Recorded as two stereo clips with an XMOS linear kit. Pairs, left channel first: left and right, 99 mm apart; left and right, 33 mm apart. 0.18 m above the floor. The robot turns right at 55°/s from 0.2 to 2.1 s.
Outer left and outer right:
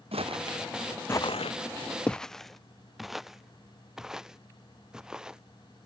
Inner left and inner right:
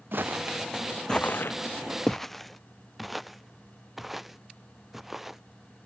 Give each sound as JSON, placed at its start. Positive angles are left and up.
{"t": 0.1, "sound": "footsteps", "side_deg": -75}